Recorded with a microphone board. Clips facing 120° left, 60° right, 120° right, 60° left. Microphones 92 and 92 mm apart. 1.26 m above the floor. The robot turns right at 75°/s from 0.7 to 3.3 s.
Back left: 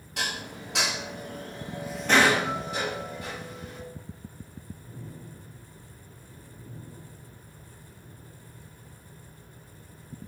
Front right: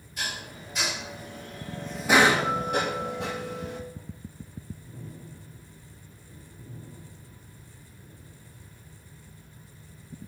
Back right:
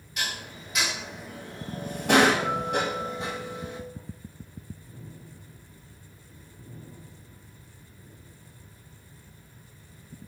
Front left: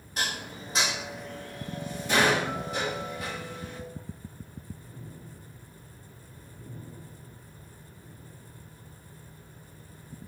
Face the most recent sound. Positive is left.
turn(degrees=-50)